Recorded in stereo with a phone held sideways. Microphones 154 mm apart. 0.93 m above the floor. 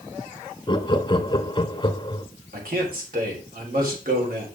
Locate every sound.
0.7 s laughter: 30° left (ahead or behind), 1.1 m
2.5 s a man speaking: 80° right, 3 m